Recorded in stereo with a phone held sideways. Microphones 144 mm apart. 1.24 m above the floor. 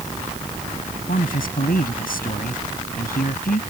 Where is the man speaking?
85° left.